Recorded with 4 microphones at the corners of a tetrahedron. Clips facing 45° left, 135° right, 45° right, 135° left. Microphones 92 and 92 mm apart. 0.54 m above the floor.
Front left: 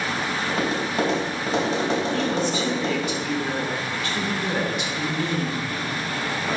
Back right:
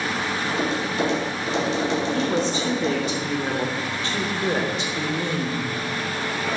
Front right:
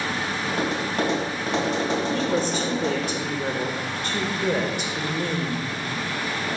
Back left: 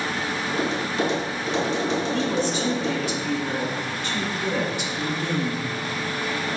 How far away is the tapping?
About 2.5 m.